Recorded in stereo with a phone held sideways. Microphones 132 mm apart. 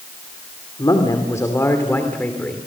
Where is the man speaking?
30° left (ahead or behind), 2.5 m; by 2.7 s 5° left (ahead or behind), 3 m.